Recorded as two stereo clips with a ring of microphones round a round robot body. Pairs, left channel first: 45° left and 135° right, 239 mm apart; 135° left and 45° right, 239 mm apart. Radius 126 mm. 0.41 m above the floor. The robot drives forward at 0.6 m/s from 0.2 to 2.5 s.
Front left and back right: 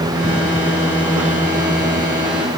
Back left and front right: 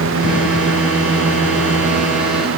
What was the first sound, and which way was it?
Only background noise.